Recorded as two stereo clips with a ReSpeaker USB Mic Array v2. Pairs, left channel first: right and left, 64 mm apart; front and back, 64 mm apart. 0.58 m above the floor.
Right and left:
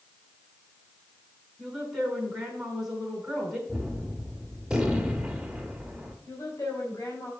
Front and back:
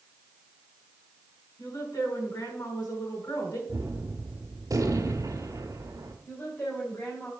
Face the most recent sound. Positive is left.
turn(degrees=-55)